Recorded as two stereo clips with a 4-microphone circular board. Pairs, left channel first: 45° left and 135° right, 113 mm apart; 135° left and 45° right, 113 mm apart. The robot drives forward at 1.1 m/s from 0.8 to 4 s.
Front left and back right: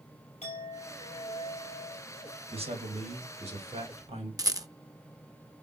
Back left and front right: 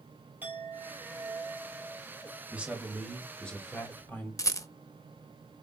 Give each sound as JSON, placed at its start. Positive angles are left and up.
{"t": 0.4, "sound": "a clink", "azimuth_deg": 30, "distance_m": 3.0}
{"t": 2.5, "sound": "a man speaking", "azimuth_deg": -120, "distance_m": 1.9}
{"t": 4.4, "sound": "a rattle", "azimuth_deg": -175, "distance_m": 0.7}